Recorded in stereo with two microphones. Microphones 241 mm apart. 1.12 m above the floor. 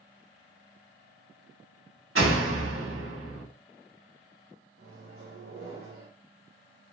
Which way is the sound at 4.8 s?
70° right (ahead or behind).